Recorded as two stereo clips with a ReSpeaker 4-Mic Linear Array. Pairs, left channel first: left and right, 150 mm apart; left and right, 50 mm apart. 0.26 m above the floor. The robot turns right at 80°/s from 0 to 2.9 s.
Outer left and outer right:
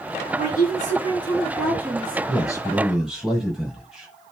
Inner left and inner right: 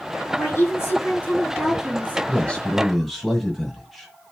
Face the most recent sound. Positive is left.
turn(degrees=-175)